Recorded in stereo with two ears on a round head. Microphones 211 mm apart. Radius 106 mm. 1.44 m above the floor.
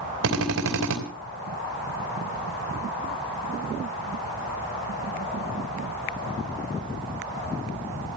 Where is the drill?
70° right (ahead or behind), 3.5 m.